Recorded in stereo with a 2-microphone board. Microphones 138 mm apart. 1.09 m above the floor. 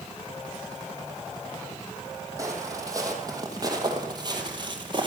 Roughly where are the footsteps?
Right.